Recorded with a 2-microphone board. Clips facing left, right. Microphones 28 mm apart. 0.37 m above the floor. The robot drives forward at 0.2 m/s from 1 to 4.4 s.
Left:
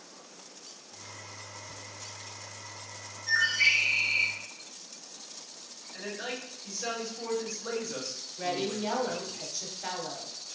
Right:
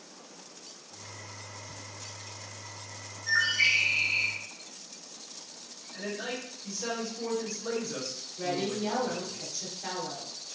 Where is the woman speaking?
20° left (ahead or behind), 0.8 m.